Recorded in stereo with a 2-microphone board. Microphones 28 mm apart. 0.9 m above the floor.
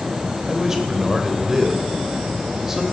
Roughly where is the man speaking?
Centre.